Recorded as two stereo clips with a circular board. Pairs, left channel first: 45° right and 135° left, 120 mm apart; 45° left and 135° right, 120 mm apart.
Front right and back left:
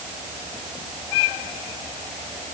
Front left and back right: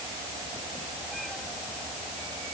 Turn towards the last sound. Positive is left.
No sound to turn to.